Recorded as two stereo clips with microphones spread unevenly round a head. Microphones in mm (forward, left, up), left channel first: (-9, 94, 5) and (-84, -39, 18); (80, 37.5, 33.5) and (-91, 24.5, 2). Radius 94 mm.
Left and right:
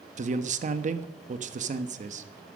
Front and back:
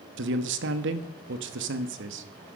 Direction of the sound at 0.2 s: 160° right.